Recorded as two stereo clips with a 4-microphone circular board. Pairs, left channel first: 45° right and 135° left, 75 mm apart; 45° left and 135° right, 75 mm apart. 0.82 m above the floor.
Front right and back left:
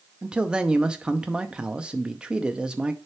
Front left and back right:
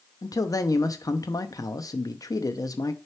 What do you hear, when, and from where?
0.2 s a man speaking: 60° left, 0.6 m